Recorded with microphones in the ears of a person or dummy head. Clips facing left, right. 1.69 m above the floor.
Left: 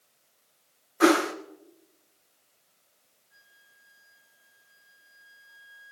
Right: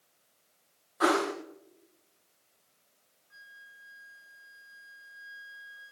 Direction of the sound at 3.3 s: 65° right (ahead or behind).